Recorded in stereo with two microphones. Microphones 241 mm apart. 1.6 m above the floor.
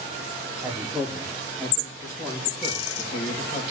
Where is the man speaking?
10° right (ahead or behind), 3.5 m; by 3.6 s 35° left (ahead or behind), 3 m.